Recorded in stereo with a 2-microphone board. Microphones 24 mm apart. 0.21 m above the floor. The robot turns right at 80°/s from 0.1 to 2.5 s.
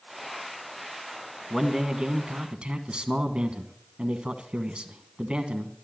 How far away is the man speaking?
About 1.4 m.